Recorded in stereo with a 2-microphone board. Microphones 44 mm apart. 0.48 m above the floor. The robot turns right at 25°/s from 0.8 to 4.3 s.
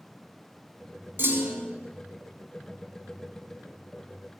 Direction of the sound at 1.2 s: 60° right (ahead or behind).